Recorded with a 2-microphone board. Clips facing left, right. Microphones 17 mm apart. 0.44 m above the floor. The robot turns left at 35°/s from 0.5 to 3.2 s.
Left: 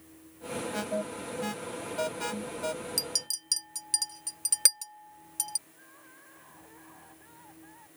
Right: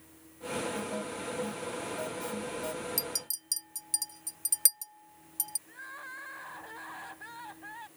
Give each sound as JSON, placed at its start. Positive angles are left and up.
{"t": 0.7, "sound": "an alarm", "side_deg": 65}
{"t": 3.0, "sound": "a clink", "side_deg": 25}
{"t": 5.7, "sound": "crying", "side_deg": -50}